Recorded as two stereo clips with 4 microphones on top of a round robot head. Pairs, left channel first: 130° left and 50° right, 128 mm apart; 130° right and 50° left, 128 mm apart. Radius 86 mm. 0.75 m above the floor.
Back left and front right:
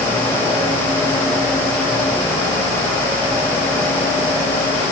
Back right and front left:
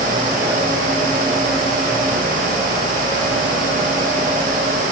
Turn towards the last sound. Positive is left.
No sound to turn to.